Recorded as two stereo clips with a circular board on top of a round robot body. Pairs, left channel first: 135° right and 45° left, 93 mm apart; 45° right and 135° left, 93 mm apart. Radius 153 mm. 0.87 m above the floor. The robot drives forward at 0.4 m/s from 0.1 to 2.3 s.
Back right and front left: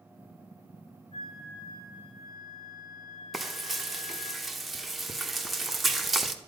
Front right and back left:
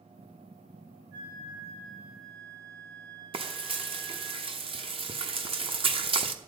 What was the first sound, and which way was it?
A flute, 170° right.